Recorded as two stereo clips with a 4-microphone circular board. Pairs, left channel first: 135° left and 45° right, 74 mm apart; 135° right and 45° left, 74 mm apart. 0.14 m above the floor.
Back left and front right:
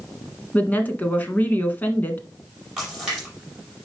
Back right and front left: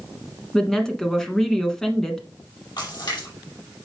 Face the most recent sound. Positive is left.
turn(degrees=-130)